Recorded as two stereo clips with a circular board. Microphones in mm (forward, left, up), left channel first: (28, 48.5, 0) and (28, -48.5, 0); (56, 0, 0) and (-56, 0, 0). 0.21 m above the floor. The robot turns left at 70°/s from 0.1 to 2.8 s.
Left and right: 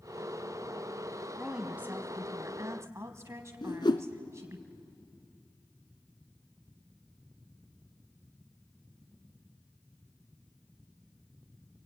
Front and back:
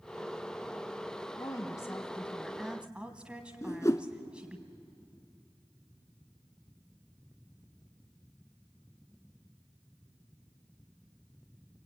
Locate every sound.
1.4 s a woman speaking: 5° right, 1.2 m; by 4.6 s 105° right, 1.2 m
3.6 s a whoosh: 60° left, 0.9 m